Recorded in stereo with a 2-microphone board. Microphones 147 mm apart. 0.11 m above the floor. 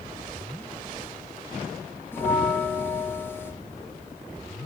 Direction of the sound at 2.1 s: 15° left (ahead or behind).